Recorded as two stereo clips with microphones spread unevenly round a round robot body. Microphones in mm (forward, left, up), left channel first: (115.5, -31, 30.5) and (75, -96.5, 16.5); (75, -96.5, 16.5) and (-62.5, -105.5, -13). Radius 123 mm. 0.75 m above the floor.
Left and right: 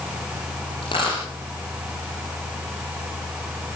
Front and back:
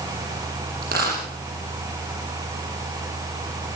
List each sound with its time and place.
0.8 s a dropped coin: 125° left, 8 m